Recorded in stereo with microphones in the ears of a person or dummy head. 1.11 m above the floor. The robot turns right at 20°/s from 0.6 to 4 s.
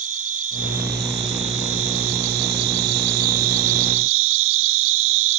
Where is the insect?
135° right, 1.1 m; by 5.4 s 70° right, 1.1 m.